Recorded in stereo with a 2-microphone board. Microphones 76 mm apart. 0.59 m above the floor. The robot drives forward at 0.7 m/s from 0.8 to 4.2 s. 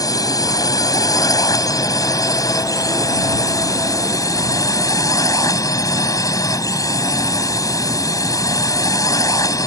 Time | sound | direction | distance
0.0 | a drone | 55° left (ahead or behind) | ?